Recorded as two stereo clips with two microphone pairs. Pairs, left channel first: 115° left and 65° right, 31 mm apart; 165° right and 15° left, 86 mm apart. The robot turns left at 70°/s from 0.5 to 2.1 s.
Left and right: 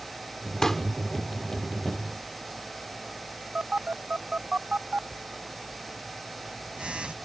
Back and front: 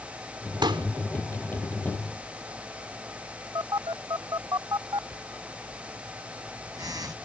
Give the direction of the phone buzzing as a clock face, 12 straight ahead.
1 o'clock.